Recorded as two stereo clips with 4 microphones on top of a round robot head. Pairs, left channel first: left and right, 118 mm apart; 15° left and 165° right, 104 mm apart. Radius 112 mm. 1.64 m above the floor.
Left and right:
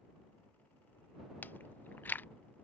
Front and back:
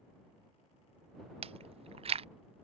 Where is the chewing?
165° left.